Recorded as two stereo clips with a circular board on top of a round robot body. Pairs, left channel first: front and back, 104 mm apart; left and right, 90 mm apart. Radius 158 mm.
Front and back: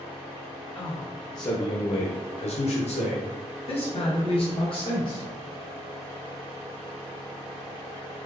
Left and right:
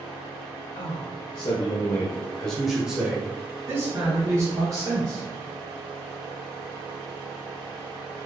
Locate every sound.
0.8 s a man speaking: 70° left, 1.0 m; by 5.2 s 40° right, 1.9 m